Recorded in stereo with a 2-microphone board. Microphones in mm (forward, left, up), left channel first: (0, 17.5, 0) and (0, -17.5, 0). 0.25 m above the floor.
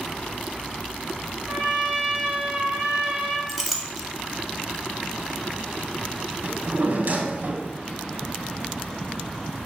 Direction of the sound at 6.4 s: 60° right (ahead or behind).